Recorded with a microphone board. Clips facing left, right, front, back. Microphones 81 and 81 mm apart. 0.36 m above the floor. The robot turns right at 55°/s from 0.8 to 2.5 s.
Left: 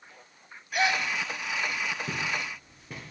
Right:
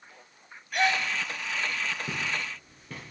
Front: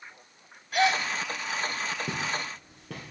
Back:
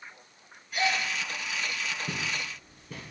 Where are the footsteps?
Straight ahead, 3.5 m; by 3.1 s 10° left, 3.5 m.